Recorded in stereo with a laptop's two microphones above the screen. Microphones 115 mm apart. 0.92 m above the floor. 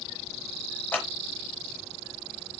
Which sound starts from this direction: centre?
Scissors, at 0.9 s.